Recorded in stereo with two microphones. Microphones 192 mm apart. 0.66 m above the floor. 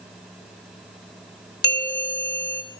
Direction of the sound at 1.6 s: 65° left (ahead or behind).